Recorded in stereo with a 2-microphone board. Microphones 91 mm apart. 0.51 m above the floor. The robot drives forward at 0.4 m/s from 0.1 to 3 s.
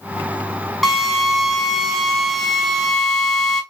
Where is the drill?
Centre (ahead or behind), 3 m.